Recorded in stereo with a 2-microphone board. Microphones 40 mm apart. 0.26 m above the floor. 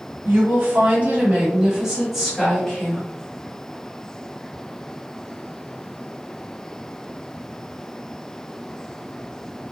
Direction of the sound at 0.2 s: 50° right (ahead or behind).